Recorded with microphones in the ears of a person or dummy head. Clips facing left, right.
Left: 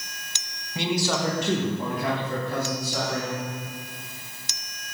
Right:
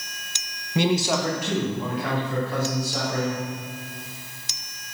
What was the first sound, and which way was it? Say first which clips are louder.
A man speaking: right 4 dB; 45° right (ahead or behind).